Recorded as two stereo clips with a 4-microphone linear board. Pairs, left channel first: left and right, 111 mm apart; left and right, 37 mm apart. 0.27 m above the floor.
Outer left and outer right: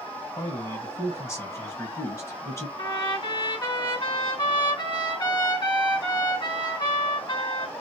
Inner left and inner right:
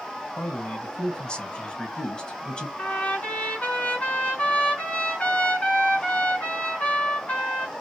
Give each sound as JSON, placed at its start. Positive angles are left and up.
{"t": 0.4, "sound": "a man speaking", "side_deg": 30, "distance_m": 1.3}
{"t": 2.8, "sound": "a trumpet", "side_deg": 45, "distance_m": 2.0}